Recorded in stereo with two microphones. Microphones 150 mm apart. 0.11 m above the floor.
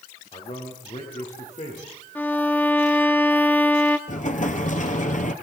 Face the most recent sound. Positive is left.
turn(degrees=60)  # may be behind; listen again after turning